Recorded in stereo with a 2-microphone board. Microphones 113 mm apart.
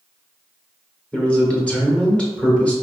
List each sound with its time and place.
1.1 s a man speaking: 10° left (ahead or behind), 1.1 m